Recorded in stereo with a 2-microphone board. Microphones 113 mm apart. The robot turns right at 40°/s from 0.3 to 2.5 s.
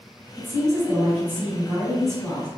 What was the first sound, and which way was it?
A woman speaking, 25° right (ahead or behind).